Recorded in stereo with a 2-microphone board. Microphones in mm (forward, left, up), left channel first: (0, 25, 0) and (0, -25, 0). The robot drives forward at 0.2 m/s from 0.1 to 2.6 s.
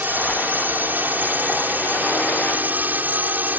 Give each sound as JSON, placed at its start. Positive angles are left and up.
{"t": 0.0, "sound": "a drone", "side_deg": -40}